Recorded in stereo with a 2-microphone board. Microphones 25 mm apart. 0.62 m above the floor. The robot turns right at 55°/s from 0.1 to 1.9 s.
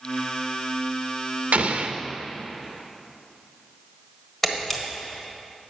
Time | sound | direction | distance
1.5 | an explosion | 80° right | 0.8 m
4.4 | a camera shutter | 10° left (ahead or behind) | 1.5 m